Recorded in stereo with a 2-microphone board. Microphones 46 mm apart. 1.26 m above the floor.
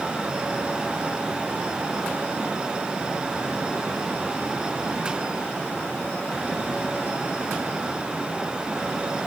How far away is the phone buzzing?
No phone buzzing in this recording.